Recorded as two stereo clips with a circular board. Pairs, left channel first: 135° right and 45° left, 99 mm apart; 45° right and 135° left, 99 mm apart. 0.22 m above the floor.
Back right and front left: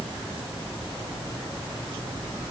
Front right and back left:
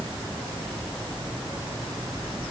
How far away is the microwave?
I don't hear a microwave.